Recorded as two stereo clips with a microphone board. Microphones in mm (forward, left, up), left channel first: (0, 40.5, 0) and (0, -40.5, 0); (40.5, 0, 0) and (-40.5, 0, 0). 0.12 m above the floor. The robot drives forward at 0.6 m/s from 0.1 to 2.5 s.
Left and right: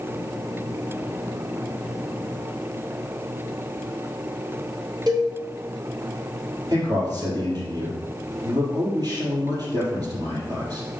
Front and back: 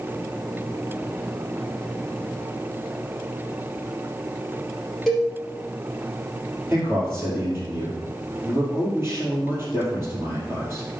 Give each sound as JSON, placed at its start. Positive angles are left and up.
{"t": 5.1, "sound": "a cowbell", "azimuth_deg": -90, "distance_m": 2.0}
{"t": 6.7, "sound": "a man speaking", "azimuth_deg": -125, "distance_m": 3.5}